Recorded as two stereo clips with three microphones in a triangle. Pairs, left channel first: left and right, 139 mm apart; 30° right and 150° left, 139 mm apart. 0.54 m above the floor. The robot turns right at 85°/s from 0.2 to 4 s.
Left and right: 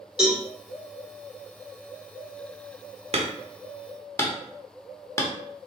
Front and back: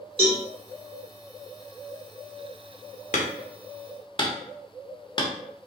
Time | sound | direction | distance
0.2 | a cowbell | 170° right | 1.9 m
3.1 | hammering | 50° right | 0.8 m